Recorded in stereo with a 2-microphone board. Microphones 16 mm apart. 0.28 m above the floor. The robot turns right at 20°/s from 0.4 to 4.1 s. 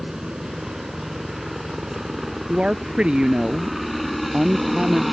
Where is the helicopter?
60° right (ahead or behind); by 5.1 s 10° right (ahead or behind).